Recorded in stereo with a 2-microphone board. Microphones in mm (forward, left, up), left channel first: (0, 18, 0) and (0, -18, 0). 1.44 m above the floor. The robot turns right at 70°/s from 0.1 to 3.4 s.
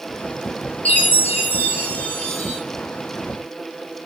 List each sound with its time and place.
0.8 s a chime: 60° left, 0.8 m; by 2.6 s 175° right, 0.8 m